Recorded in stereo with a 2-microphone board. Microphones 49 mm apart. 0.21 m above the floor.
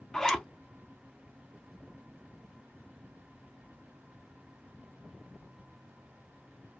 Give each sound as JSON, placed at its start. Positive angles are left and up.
{"t": 0.1, "sound": "a zipper", "side_deg": 10, "distance_m": 0.5}